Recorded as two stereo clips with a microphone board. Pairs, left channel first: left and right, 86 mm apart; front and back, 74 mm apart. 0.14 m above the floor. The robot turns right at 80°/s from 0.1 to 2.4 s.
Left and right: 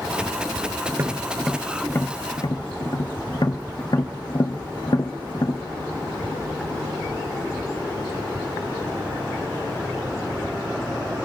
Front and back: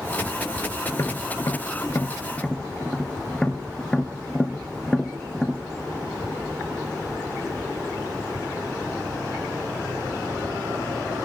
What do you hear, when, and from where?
0.9 s tapping: 45° right, 1.2 m; by 5.6 s 75° left, 1.2 m